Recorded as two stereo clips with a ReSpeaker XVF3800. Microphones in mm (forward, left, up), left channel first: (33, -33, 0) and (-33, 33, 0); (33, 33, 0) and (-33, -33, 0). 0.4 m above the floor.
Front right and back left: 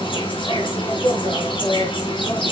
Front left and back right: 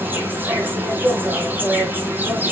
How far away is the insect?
About 4 m.